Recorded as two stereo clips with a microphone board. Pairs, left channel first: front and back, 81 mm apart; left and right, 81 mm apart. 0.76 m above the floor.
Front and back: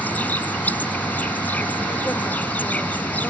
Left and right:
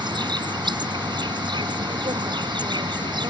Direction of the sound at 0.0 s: 70° right.